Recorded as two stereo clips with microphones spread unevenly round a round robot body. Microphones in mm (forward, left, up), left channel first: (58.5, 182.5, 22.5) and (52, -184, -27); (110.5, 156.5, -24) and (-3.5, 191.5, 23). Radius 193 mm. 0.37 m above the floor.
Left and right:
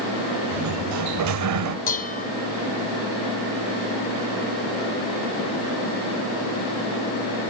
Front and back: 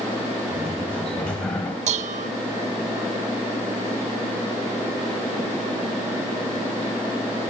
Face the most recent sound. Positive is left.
turn(degrees=155)